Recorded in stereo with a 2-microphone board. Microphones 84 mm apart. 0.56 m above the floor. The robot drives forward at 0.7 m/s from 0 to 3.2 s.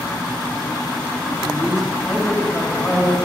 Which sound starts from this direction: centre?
A man speaking, at 1.4 s.